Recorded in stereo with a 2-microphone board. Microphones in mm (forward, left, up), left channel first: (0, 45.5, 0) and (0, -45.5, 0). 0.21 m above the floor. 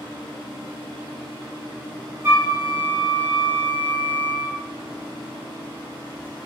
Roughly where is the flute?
Right.